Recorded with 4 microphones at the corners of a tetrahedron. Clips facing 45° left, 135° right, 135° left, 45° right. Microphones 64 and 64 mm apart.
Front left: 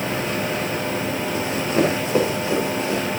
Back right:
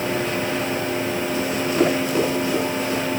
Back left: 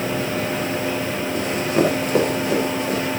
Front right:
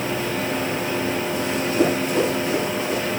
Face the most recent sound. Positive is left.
turn(degrees=110)